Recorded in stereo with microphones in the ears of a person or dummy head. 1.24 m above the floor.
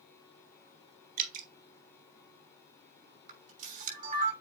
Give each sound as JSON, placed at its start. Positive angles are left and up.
{"t": 1.2, "sound": "dripping", "side_deg": -55, "distance_m": 1.9}
{"t": 3.3, "sound": "a camera shutter", "side_deg": -50, "distance_m": 6.5}